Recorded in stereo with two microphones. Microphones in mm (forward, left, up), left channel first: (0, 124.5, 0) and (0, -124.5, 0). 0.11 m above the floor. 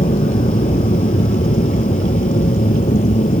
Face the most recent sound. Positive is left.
turn(degrees=30)  # may be behind; listen again after turning